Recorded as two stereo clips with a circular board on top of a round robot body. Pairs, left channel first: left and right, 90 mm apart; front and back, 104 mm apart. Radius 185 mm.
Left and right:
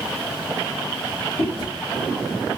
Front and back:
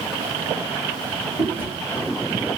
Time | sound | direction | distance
1.4 | chewing | 70° left | 2.5 m